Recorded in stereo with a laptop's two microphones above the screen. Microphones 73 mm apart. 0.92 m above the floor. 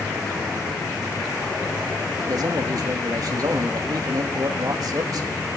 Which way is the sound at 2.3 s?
55° right (ahead or behind).